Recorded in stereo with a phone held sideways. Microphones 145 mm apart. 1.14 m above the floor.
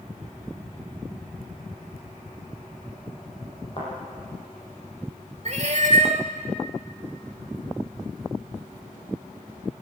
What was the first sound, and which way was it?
A thud, 40° left (ahead or behind).